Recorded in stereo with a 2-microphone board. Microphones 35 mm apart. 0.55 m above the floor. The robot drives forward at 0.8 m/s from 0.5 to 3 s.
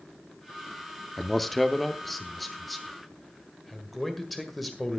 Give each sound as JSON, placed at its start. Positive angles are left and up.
{"t": 1.2, "sound": "a man speaking", "side_deg": 5, "distance_m": 0.6}